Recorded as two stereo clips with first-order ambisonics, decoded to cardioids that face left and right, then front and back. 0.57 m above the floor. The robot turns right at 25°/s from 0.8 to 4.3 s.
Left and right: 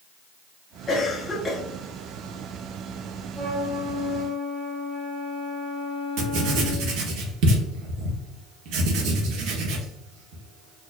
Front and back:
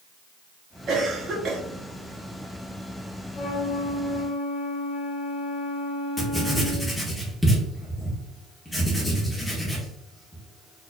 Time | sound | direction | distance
0.9 | a cough | 150° left | 0.9 m
3.3 | a flute | 40° right | 1.2 m
6.2 | writing | 85° right | 0.8 m